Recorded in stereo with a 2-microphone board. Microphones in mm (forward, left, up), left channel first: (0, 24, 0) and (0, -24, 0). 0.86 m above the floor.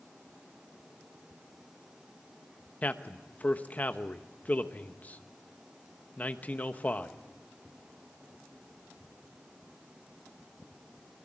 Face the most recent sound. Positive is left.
turn(degrees=30)  # may be behind; listen again after turning